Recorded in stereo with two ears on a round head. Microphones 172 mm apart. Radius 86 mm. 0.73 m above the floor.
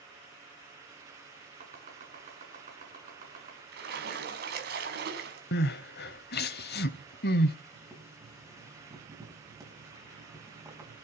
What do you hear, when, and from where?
1.6 s chopping: 40° right (ahead or behind), 7.5 m
3.7 s a splash: 55° right (ahead or behind), 4.5 m
5.5 s crying: 55° left (ahead or behind), 1.3 m
7.7 s boiling: 15° right (ahead or behind), 6.5 m